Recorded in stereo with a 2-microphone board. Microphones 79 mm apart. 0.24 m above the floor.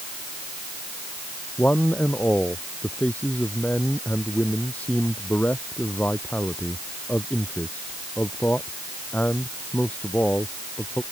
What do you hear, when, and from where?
1.6 s a man speaking: 20° left (ahead or behind)